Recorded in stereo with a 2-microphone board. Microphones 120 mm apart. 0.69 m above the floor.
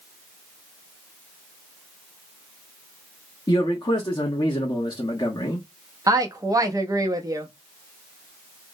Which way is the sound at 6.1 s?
30° right (ahead or behind).